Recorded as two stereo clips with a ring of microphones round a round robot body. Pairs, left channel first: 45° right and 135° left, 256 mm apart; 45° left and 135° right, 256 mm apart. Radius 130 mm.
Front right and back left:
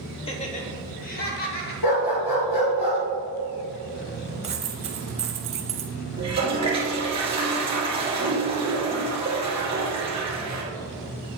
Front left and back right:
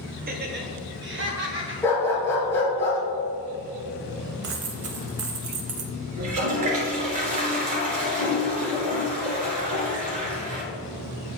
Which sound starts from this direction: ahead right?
A dog barking, at 1.8 s.